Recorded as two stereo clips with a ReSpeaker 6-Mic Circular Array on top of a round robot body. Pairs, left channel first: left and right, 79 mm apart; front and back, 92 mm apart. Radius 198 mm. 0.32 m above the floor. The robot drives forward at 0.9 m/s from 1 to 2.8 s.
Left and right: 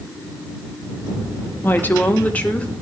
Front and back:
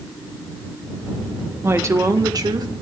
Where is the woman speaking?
135° left, 1.6 m; by 2.7 s 160° left, 2 m.